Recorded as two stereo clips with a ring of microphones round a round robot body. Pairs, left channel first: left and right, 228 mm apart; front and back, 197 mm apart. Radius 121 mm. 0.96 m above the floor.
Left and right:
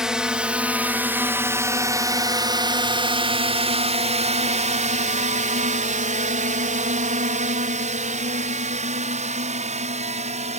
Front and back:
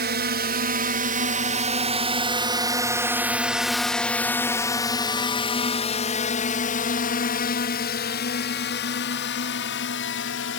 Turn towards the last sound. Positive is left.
turn(degrees=-30)